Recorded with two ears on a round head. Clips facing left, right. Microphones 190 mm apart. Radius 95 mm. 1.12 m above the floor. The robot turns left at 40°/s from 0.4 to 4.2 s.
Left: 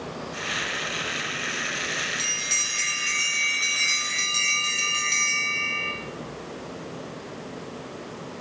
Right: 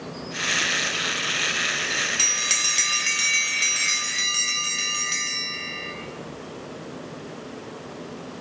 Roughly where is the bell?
Right.